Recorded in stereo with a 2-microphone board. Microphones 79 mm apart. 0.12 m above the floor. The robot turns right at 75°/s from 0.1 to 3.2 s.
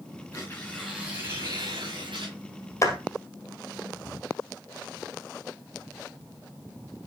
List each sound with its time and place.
0.3 s tearing paper: 145° left, 6 m; by 2.4 s 65° right, 6 m
2.8 s a clap: 40° left (ahead or behind), 2 m; by 3.0 s 30° left (ahead or behind), 2 m